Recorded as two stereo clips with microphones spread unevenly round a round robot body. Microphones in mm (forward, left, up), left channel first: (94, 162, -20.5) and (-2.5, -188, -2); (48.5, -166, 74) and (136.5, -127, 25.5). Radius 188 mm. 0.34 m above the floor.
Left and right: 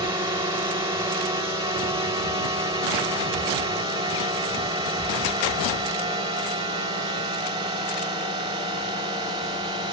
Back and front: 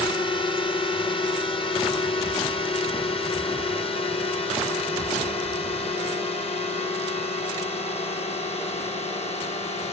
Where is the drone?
170° right; by 9.9 s straight behind.